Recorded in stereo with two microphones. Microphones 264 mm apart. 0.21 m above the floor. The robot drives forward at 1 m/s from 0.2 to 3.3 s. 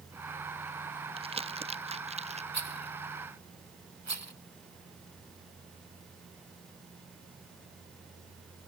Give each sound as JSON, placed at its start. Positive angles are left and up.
{"t": 1.2, "sound": "crumpling", "side_deg": -20}
{"t": 2.5, "sound": "a rattle", "side_deg": -80}